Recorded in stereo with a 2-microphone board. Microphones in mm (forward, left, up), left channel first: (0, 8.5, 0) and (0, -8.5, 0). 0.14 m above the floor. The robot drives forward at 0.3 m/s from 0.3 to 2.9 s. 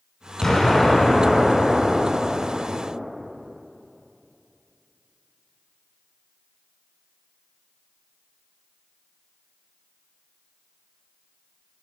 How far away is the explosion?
About 1.0 m.